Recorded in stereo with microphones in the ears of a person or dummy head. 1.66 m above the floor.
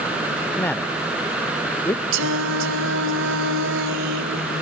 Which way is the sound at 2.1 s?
65° right (ahead or behind).